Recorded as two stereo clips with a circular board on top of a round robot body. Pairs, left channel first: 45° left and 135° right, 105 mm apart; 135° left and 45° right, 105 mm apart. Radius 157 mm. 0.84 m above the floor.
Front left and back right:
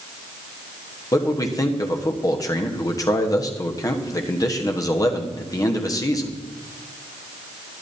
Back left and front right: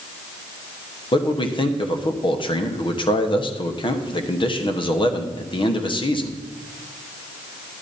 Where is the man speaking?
100° left, 1.4 m.